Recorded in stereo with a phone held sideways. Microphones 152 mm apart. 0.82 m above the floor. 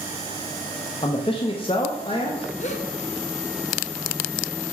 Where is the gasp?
50° left (ahead or behind), 0.9 m.